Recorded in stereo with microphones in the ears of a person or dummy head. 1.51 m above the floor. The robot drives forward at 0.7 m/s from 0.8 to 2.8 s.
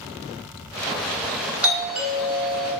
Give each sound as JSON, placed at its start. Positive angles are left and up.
{"t": 1.6, "sound": "a doorbell", "side_deg": -5, "distance_m": 1.3}